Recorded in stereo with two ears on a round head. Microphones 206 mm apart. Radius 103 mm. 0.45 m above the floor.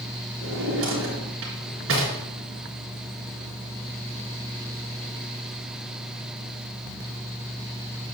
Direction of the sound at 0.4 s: 60° right (ahead or behind).